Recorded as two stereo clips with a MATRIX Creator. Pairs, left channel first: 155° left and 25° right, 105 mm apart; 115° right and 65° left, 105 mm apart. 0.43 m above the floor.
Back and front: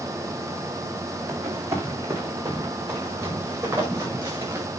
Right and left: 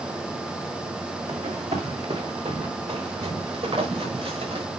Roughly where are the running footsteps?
Ahead left.